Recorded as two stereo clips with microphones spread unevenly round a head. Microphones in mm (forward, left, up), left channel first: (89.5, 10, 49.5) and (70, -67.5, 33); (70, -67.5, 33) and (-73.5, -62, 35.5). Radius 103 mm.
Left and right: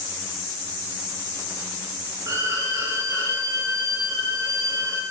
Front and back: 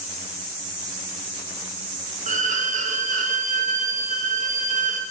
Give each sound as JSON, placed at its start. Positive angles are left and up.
{"t": 2.3, "sound": "a violin", "azimuth_deg": -155, "distance_m": 1.9}